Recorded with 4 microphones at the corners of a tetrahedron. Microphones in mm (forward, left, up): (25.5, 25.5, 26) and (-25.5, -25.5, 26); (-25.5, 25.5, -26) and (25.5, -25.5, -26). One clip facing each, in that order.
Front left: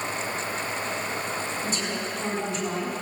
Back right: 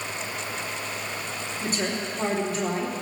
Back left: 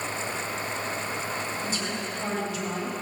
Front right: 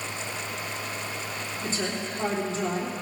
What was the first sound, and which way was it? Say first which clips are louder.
A woman speaking: back right 1 dB, front right 1 dB; 100° right.